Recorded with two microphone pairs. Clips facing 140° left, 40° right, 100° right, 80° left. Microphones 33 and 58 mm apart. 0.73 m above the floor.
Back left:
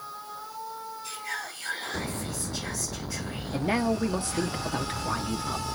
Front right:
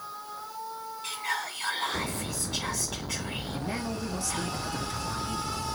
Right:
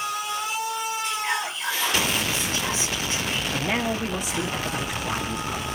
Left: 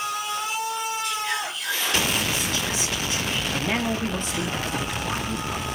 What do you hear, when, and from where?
1.0 s whispering: 50° right, 6.5 m
3.5 s a man speaking: 175° left, 1.2 m